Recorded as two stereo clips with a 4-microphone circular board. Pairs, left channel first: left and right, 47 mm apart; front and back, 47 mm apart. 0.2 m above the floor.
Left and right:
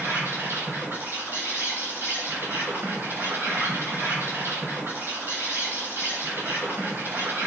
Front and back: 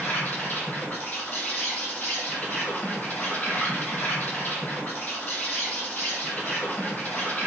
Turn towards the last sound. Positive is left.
turn(degrees=-50)